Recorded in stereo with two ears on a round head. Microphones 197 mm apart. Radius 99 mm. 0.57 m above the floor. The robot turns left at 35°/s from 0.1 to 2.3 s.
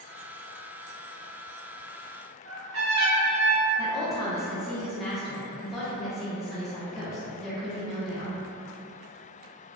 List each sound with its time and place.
2.5 s a trumpet: 60° right (ahead or behind), 0.8 m
3.8 s a woman speaking: centre (ahead or behind), 0.7 m